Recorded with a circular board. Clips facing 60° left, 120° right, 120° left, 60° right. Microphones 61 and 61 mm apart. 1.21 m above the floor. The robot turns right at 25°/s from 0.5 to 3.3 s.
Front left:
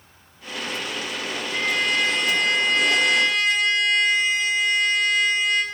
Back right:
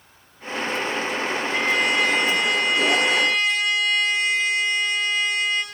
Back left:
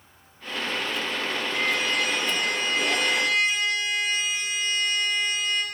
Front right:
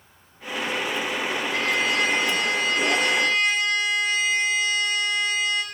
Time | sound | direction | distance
1.5 | a trumpet | 65° right | 5 m